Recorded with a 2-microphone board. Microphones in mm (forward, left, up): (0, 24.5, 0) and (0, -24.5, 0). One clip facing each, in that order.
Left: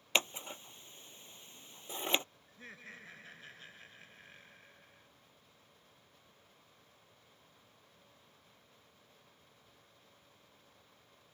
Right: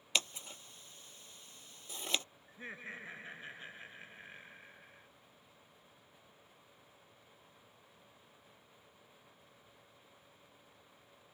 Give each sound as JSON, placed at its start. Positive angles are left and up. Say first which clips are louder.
{"t": 0.1, "sound": "scissors", "louder": "left 3 dB", "side_deg": 30}
{"t": 2.5, "sound": "laughter", "louder": "right 5 dB", "side_deg": -25}